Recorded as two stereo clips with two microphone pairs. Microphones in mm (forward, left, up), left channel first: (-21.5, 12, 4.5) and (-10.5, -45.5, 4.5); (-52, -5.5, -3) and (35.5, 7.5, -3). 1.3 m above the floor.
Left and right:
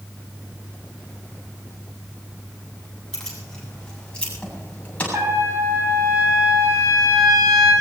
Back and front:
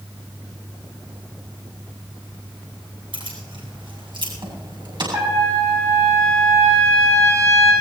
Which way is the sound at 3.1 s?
20° left.